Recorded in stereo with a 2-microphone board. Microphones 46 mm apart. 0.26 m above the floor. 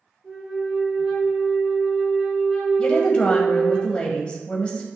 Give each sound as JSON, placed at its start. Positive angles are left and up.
{"t": 0.2, "sound": "a flute", "side_deg": -10, "distance_m": 3.0}
{"t": 2.8, "sound": "a woman speaking", "side_deg": 25, "distance_m": 1.0}